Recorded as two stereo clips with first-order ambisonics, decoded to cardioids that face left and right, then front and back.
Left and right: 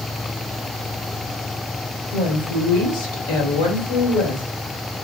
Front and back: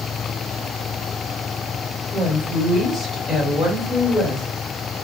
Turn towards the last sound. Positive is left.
turn(degrees=90)